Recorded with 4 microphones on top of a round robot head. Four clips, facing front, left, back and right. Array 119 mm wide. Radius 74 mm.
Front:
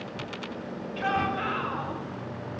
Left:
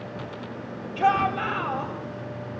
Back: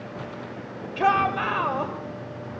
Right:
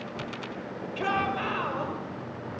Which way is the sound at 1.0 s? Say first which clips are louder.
Left 7 dB, back 7 dB; 165° right.